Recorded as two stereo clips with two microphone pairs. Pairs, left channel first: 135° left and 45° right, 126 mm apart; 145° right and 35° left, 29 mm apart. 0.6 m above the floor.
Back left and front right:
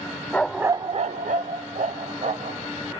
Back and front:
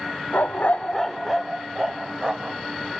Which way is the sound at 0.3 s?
150° right.